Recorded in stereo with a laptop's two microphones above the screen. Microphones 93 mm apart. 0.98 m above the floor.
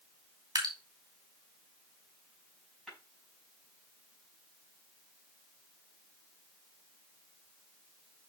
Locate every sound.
0.6 s dripping: 40° right (ahead or behind), 2.5 m
2.9 s tapping: 5° left (ahead or behind), 4.5 m